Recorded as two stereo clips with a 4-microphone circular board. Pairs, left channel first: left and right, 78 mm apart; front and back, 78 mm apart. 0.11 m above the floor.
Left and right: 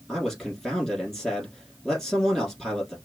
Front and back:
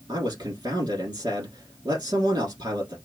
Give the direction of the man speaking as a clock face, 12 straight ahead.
6 o'clock.